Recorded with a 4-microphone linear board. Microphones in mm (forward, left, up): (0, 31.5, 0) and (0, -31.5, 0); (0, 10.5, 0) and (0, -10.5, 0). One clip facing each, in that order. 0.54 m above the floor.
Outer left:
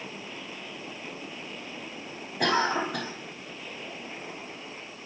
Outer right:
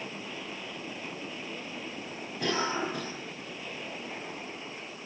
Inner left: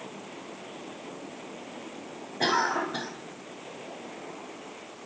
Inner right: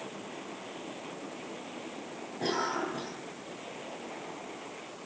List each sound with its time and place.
2.4 s a cough: 75° left (ahead or behind), 4.5 m